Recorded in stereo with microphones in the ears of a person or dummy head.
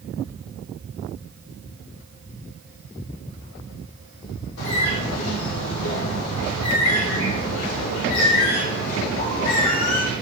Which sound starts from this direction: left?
A bird, at 4.6 s.